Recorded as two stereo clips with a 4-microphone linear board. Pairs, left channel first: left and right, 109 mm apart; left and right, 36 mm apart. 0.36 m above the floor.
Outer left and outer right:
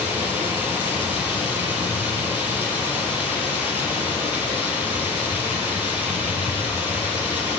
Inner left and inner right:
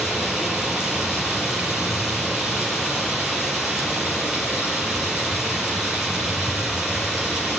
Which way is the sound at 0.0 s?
15° right (ahead or behind).